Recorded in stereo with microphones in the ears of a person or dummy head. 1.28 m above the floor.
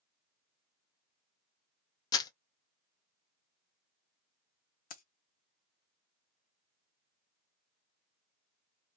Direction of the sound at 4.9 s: 50° left (ahead or behind).